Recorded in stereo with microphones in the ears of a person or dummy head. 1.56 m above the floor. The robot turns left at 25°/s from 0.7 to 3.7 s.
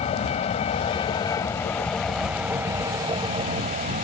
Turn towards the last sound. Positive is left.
turn(degrees=-35)